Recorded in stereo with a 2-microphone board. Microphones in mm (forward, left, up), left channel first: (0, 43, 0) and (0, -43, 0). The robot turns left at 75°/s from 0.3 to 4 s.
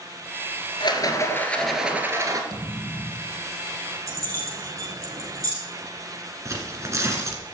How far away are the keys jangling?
About 3.5 m.